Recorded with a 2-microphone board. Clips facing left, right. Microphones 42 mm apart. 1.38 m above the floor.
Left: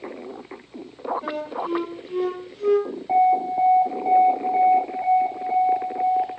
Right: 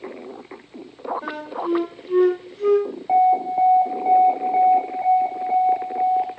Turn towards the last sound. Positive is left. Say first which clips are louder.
# right 2 dB
turn(degrees=-15)  # may be behind; listen again after turning